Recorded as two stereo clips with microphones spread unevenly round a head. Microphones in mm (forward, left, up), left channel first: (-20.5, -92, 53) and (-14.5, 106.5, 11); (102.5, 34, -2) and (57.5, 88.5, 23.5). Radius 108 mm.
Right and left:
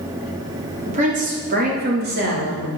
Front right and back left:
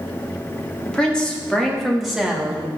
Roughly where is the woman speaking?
Ahead left.